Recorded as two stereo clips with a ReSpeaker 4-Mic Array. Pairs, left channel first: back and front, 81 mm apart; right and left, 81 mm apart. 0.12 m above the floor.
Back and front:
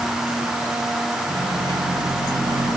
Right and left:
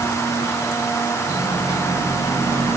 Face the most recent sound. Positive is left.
turn(degrees=-45)